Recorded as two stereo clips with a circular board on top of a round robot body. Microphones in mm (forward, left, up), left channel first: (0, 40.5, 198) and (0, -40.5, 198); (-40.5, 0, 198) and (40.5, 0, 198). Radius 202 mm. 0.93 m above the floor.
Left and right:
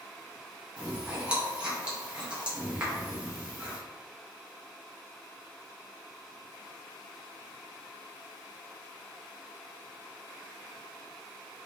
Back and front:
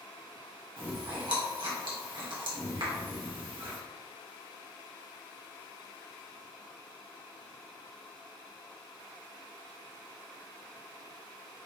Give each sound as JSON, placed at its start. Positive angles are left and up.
{"t": 0.8, "sound": "chewing", "azimuth_deg": -15, "distance_m": 2.0}